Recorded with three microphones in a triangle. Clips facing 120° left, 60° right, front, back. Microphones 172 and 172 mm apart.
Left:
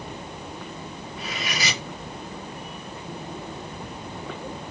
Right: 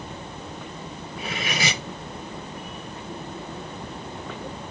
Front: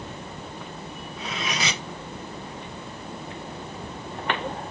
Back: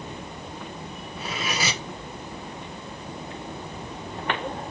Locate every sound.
1.2 s cutlery clinking: 100° right, 1.4 m